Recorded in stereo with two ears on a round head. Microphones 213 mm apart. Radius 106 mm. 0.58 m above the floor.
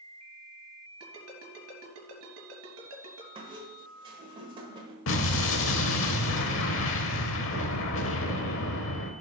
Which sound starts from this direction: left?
An explosion, at 5.1 s.